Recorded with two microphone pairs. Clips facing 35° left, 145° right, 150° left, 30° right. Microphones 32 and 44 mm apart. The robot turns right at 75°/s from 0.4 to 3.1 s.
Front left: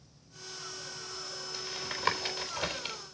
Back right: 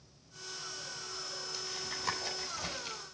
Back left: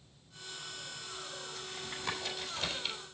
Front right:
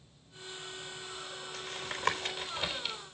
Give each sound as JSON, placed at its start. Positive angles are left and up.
{"t": 1.5, "sound": "tapping", "azimuth_deg": -40, "distance_m": 4.0}